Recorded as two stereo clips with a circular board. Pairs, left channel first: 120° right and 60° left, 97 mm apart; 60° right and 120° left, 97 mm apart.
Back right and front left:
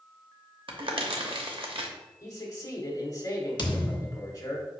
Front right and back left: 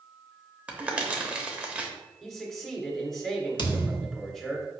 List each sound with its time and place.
0.7 s crumpling: 45° left, 0.7 m
2.2 s a man speaking: 145° right, 1.2 m
3.6 s a thud: 90° right, 0.6 m